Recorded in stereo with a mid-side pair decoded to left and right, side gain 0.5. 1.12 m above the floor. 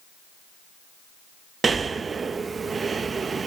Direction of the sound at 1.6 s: 35° right.